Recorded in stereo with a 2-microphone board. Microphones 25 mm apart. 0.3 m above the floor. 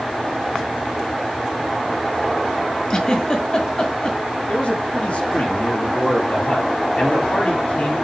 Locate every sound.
2.9 s a giggle: 30° left (ahead or behind), 1.8 m
4.5 s a man speaking: 60° left (ahead or behind), 5.5 m